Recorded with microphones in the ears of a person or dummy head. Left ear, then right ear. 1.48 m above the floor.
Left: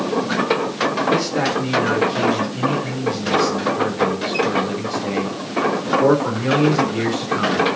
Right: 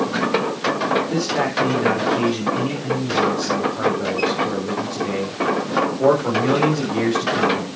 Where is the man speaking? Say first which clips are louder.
Left 2 dB; 5° left (ahead or behind), 4.5 m.